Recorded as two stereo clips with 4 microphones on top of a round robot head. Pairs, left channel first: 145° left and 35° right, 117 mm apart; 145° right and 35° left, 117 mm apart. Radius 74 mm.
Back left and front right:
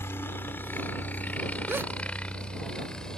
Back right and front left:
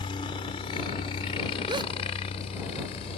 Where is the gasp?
25° left.